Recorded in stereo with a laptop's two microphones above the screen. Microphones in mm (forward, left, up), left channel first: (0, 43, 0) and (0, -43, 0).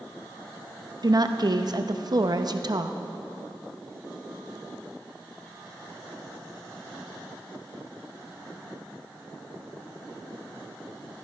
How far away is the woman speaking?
About 0.7 m.